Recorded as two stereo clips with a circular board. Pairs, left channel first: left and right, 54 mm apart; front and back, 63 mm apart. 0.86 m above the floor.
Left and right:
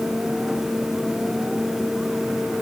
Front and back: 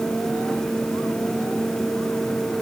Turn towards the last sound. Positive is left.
No sound to turn to.